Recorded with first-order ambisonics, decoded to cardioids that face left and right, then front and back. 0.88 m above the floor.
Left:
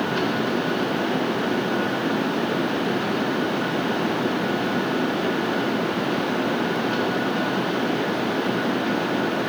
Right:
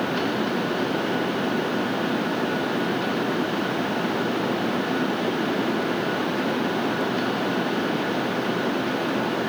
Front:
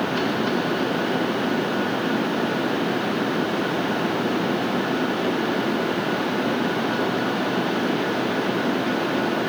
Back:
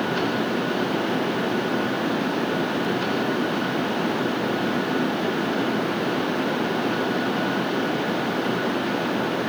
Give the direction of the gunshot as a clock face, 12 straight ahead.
No gunshot in this recording.